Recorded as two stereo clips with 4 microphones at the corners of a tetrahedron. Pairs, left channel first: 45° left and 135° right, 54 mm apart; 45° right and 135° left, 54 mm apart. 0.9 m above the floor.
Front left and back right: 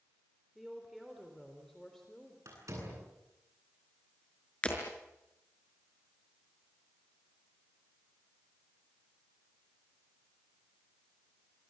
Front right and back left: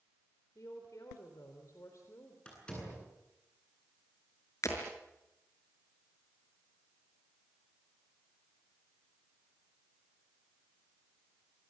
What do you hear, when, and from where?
0.6 s a woman speaking: 50° right, 4 m; by 2.4 s 35° right, 4 m
2.5 s a door slam: 115° right, 9.5 m
4.6 s breaking glass: 25° right, 5.5 m